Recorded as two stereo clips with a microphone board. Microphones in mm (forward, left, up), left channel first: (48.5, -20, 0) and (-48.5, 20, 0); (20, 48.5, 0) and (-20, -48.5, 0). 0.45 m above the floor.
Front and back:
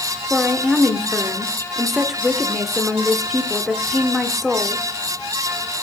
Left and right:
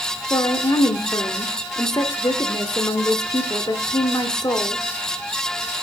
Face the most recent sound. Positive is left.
turn(degrees=70)